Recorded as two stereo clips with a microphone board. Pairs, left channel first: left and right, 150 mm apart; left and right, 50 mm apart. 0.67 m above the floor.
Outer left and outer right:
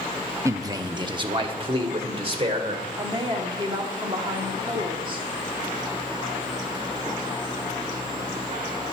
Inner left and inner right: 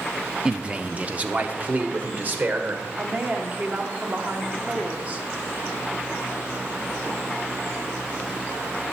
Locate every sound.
0.5 s a man speaking: 20° right (ahead or behind), 0.6 m; by 2.8 s 40° right (ahead or behind), 2 m
3.0 s a woman speaking: 35° right (ahead or behind), 1.6 m